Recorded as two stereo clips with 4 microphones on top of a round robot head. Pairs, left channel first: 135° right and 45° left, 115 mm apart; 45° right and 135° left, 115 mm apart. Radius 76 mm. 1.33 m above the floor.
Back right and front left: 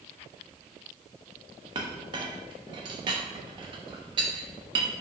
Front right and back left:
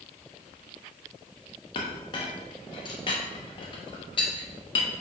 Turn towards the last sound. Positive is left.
turn(degrees=0)